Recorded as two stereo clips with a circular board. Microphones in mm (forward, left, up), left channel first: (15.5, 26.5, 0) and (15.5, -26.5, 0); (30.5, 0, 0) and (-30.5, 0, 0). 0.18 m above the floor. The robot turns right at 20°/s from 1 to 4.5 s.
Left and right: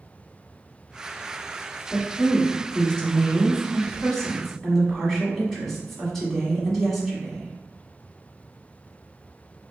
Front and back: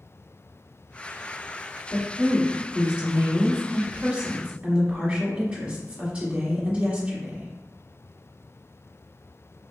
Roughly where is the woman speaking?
Behind left.